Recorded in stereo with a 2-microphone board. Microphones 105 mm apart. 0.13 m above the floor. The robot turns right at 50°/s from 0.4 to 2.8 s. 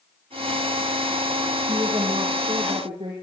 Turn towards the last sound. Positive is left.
turn(degrees=-65)